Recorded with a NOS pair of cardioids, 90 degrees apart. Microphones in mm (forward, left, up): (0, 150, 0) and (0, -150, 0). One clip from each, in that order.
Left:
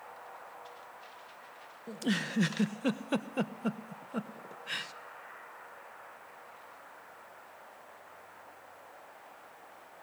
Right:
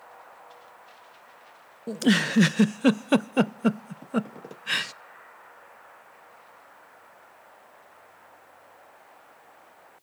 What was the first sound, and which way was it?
A giggle, 50° right.